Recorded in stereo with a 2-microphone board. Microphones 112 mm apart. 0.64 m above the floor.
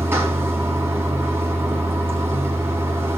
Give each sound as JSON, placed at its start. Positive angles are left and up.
{"t": 0.0, "sound": "running water", "side_deg": -20, "distance_m": 4.5}